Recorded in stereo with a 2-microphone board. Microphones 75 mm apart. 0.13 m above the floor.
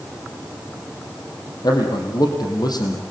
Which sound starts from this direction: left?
A man speaking, at 1.6 s.